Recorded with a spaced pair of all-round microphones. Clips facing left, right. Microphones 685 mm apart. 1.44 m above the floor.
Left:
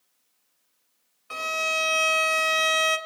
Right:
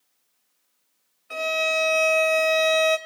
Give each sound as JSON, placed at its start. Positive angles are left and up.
{"t": 1.3, "sound": "a violin", "side_deg": 35, "distance_m": 1.0}